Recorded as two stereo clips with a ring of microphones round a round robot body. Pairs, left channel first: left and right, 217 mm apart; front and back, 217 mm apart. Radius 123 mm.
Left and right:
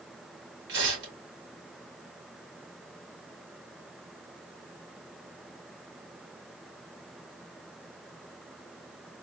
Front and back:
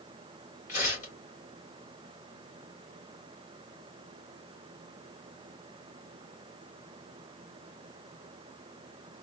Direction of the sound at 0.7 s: 55° right.